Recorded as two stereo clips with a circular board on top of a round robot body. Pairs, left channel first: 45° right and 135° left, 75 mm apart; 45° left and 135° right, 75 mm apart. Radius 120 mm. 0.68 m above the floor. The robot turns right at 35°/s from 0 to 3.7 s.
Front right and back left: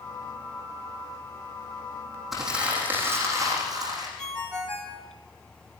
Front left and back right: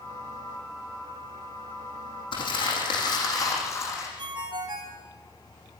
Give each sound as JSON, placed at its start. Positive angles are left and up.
{"t": 2.3, "sound": "crumpling", "azimuth_deg": 45, "distance_m": 8.5}
{"t": 4.2, "sound": "a ringtone", "azimuth_deg": -125, "distance_m": 4.0}